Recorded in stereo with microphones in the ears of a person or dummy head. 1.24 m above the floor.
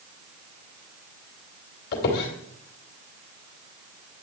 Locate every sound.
1.9 s a squeak: 55° left (ahead or behind), 2.5 m